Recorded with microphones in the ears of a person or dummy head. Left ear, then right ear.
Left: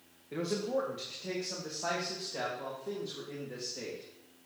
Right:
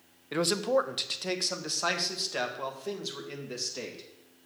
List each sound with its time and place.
0.3 s a man speaking: 50° right (ahead or behind), 0.7 m; by 4.0 s 70° right (ahead or behind), 2.5 m